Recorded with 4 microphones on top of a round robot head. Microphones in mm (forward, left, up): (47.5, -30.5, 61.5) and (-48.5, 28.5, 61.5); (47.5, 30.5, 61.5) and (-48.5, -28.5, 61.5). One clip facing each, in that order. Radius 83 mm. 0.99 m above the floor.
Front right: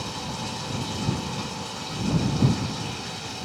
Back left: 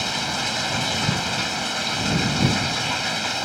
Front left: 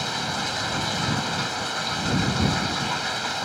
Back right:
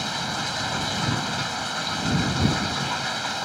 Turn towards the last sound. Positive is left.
turn(degrees=120)